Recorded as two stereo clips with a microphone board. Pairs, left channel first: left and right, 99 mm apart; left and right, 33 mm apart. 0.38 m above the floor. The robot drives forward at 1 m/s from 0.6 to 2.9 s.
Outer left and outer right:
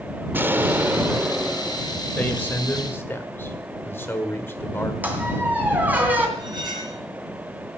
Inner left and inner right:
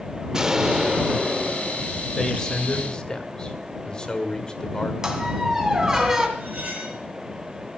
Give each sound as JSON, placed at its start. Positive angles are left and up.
{"t": 0.3, "sound": "an explosion", "side_deg": -20, "distance_m": 0.6}
{"t": 2.2, "sound": "a man speaking", "side_deg": 15, "distance_m": 1.9}
{"t": 5.0, "sound": "a squeak", "side_deg": -15, "distance_m": 2.5}
{"t": 6.4, "sound": "cutlery clinking", "side_deg": -40, "distance_m": 3.5}